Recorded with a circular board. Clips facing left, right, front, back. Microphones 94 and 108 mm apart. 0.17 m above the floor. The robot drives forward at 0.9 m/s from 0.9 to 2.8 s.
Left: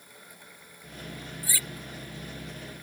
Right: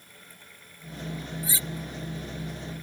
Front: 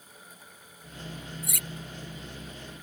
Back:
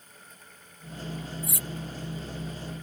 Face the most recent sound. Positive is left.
turn(degrees=-25)